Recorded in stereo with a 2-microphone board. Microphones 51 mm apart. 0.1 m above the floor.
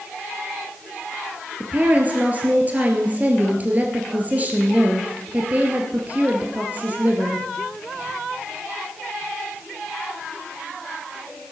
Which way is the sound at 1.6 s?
30° right (ahead or behind).